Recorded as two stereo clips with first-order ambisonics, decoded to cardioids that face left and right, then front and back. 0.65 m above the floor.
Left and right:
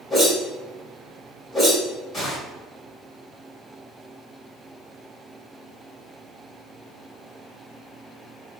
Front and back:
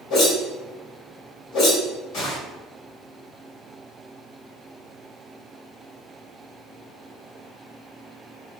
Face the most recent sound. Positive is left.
turn(degrees=25)